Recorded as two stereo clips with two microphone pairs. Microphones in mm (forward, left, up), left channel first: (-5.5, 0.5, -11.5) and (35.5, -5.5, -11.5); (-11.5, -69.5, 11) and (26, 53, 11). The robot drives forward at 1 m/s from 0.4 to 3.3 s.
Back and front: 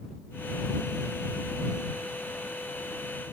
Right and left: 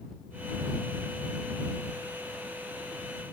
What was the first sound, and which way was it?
Only background noise.